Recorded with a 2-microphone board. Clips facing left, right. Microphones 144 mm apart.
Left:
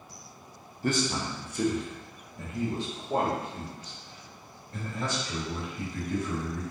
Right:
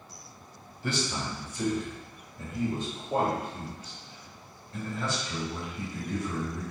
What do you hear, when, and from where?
0.8 s a man speaking: 40° left (ahead or behind), 0.8 m; by 6.6 s 55° left (ahead or behind), 4 m